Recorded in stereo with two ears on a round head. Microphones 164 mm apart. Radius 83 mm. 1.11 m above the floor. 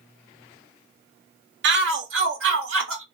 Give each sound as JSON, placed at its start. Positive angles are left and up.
{"t": 1.6, "sound": "a shout", "side_deg": -70, "distance_m": 1.3}